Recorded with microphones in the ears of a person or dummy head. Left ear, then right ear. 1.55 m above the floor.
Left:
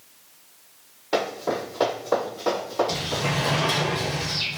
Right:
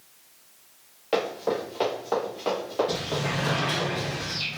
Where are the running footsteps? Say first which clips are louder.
Left 1 dB; 35° right (ahead or behind), 1.8 m; by 3.9 s centre (ahead or behind), 2 m.